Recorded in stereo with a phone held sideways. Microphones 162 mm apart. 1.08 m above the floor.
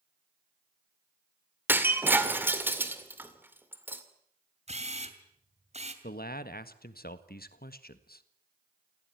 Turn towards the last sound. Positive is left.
turn(degrees=70)  # may be behind; listen again after turning